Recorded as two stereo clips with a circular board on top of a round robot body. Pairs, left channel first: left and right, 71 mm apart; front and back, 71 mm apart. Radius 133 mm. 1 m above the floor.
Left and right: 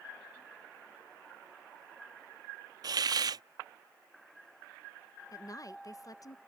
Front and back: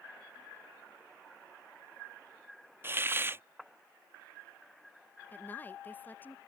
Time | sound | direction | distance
2.8 | a hiss | 120° right | ?
5.3 | a woman speaking | 60° left | ?